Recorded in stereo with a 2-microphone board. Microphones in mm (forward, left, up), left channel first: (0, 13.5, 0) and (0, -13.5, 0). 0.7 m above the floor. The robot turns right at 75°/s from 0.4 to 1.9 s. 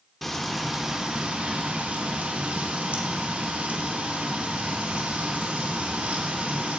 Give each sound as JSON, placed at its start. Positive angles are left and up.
{"t": 0.2, "sound": "frying", "azimuth_deg": 175, "distance_m": 1.5}